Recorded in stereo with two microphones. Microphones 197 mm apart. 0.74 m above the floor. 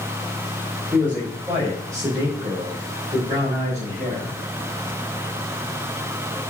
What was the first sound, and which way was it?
A man speaking, 10° right (ahead or behind).